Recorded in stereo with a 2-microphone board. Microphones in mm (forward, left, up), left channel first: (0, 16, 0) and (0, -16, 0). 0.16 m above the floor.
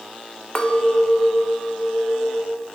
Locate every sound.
0.6 s a clink: 25° left (ahead or behind), 0.8 m